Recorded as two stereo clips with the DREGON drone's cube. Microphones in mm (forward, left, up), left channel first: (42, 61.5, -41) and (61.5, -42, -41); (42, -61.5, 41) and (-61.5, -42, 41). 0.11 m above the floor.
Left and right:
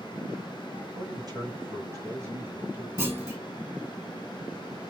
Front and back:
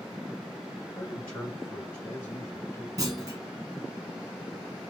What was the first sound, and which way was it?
A man speaking, 85° right.